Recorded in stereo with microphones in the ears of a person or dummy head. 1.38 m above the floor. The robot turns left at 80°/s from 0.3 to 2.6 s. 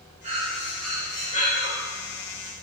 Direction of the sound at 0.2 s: 140° right.